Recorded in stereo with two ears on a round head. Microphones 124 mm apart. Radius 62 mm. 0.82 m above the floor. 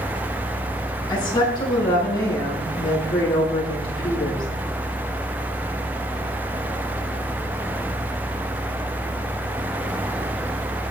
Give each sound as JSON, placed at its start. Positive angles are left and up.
{"t": 1.1, "sound": "a woman speaking", "side_deg": 30, "distance_m": 8.5}